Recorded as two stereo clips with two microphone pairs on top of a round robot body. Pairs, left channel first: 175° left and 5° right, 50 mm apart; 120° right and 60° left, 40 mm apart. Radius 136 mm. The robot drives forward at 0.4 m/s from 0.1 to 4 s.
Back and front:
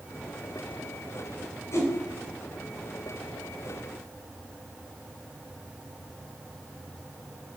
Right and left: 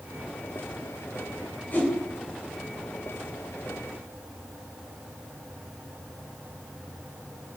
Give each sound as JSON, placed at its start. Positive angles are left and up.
{"t": 1.7, "sound": "a whoosh", "azimuth_deg": -175, "distance_m": 3.5}